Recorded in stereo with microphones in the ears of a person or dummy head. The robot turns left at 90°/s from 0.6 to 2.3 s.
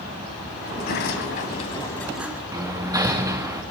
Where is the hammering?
15° right (ahead or behind), 2 m.